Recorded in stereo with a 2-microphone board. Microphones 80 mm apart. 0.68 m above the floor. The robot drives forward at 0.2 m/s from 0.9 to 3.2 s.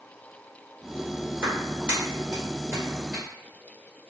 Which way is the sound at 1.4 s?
20° right (ahead or behind).